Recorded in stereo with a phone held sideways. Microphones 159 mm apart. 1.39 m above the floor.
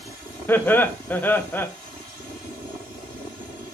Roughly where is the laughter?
Centre.